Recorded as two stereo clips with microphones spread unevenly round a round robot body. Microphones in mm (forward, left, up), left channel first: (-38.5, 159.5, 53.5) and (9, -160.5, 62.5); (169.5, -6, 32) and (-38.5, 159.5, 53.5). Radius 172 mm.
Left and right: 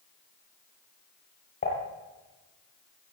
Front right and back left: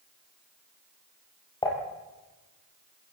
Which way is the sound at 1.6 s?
35° left.